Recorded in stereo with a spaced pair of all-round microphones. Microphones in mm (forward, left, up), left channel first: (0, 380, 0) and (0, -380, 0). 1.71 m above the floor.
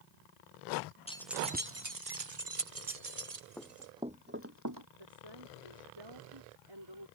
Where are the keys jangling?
10° left (ahead or behind); by 3.9 s 60° right (ahead or behind).